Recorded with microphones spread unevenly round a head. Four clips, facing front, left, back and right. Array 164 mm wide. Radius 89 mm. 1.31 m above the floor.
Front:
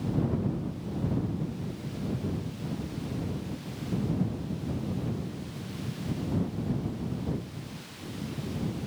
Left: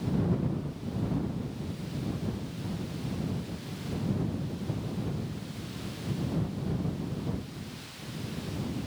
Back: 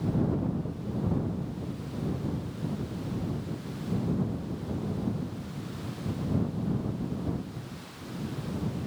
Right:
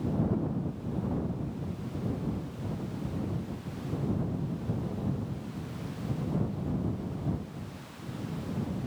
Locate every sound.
Only background noise.